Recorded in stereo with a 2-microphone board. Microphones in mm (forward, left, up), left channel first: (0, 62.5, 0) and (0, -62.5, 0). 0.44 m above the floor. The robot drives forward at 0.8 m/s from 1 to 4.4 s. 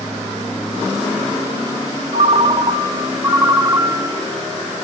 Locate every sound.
2.1 s a ringtone: 55° right (ahead or behind), 0.8 m; by 4.2 s 15° right (ahead or behind), 2.5 m